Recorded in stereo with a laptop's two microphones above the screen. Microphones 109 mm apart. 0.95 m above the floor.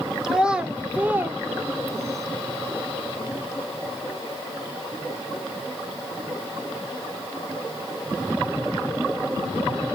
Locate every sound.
0.2 s a child speaking: 5° right (ahead or behind), 2.5 m; by 2.3 s 30° right (ahead or behind), 2.5 m